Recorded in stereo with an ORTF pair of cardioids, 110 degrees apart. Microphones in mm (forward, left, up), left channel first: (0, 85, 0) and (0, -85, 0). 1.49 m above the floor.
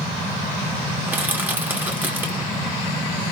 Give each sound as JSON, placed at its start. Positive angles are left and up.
{"t": 1.1, "sound": "crushing", "azimuth_deg": -10, "distance_m": 1.2}